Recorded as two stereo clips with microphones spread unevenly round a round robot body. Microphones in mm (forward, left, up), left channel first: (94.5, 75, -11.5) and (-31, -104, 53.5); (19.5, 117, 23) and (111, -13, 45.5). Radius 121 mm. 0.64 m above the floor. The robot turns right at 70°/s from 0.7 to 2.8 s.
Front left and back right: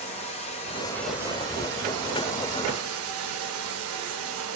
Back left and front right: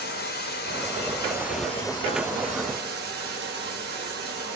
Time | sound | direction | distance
0.0 | running water | 115° left | 1.5 m